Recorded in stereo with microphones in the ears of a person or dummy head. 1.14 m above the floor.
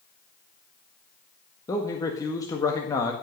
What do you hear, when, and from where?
1.7 s a man speaking: 20° left (ahead or behind), 1.7 m